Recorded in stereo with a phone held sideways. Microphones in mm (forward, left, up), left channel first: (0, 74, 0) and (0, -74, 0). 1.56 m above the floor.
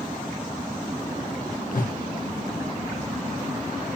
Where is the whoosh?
70° left (ahead or behind), 1.4 m.